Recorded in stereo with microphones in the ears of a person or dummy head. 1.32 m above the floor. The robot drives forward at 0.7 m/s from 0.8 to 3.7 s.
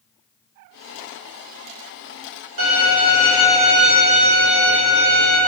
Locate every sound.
2.6 s a violin: 55° right (ahead or behind), 1.3 m; by 5.4 s 35° right (ahead or behind), 1.9 m